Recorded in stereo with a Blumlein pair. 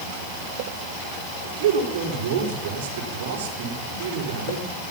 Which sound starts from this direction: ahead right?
A man speaking, at 1.4 s.